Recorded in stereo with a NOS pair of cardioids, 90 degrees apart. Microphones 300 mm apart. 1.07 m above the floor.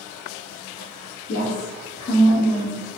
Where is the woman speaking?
40° left, 1.6 m; by 3.0 s straight ahead, 1.4 m.